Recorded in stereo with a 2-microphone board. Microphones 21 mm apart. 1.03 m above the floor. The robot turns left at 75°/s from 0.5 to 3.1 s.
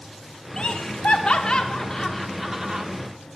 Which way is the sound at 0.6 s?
50° left (ahead or behind).